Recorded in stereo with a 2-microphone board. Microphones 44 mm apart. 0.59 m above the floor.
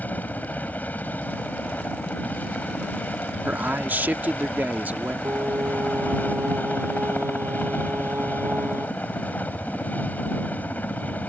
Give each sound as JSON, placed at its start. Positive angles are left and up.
{"t": 0.0, "sound": "a helicopter", "side_deg": 40}
{"t": 3.5, "sound": "a man speaking", "side_deg": -45}
{"t": 5.2, "sound": "singing", "side_deg": -80}